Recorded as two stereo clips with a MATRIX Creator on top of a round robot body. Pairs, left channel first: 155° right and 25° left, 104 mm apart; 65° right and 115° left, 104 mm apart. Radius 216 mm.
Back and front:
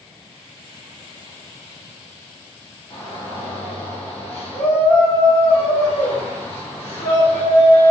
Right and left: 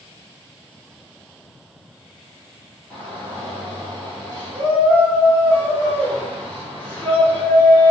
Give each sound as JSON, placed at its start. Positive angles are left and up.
{"t": 2.9, "sound": "a shout", "azimuth_deg": -140, "distance_m": 1.5}